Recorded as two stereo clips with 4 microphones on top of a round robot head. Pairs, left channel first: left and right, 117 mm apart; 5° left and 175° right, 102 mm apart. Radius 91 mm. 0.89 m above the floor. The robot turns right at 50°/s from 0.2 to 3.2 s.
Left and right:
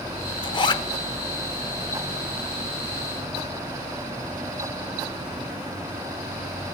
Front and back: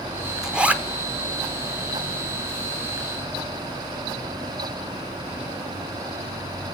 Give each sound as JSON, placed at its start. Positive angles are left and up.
{"t": 0.4, "sound": "a zipper", "azimuth_deg": 105, "distance_m": 0.9}